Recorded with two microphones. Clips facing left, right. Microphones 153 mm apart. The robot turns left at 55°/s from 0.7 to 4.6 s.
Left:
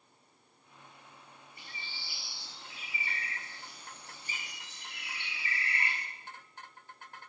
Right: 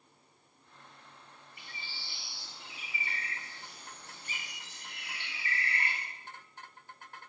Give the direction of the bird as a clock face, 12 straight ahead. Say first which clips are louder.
Even; 11 o'clock.